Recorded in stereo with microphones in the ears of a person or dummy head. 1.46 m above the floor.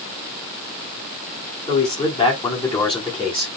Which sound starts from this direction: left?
A man speaking, at 1.7 s.